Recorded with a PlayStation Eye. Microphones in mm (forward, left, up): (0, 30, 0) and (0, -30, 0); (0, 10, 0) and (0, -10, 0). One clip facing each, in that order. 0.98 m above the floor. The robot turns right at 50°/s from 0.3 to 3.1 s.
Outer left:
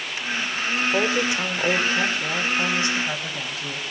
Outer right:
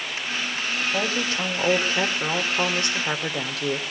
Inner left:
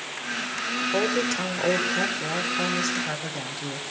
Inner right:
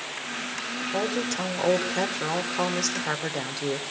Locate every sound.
0.9 s a woman speaking: 150° left, 2.5 m; by 3.8 s 105° right, 2.5 m